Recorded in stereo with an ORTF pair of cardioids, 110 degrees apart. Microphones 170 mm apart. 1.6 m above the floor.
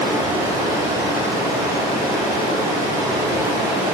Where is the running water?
15° right, 1.3 m.